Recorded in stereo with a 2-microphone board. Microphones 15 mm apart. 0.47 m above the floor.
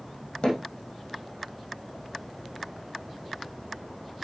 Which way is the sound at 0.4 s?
75° left (ahead or behind).